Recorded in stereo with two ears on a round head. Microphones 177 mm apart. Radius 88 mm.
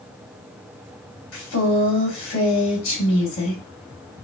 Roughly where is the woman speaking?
Left.